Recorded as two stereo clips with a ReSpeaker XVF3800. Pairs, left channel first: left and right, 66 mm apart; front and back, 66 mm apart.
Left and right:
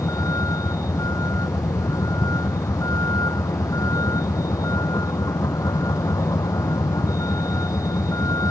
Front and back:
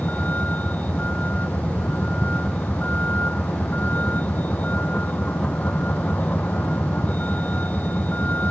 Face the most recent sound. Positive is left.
turn(degrees=60)